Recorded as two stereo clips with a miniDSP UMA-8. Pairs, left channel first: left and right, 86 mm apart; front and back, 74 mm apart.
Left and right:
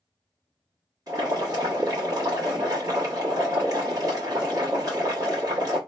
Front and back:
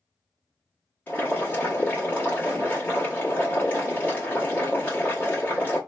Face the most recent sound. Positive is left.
turn(degrees=-60)